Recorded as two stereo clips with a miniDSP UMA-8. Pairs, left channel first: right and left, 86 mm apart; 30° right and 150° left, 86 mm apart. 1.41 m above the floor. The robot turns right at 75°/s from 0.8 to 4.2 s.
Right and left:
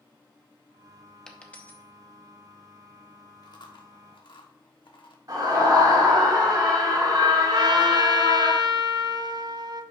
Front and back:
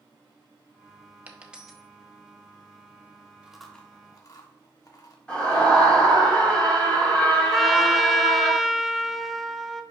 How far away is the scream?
About 4.5 m.